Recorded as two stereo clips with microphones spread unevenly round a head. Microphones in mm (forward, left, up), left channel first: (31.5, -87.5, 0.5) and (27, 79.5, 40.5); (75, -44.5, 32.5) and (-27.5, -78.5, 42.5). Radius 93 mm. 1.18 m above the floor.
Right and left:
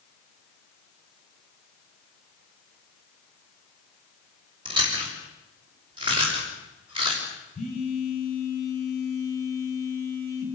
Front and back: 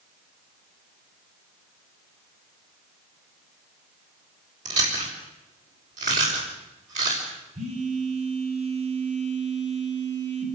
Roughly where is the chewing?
Behind.